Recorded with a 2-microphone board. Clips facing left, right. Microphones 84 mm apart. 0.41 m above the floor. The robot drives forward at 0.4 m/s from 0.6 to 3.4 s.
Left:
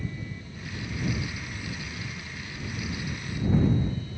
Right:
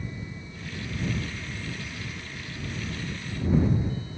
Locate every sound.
Only background noise.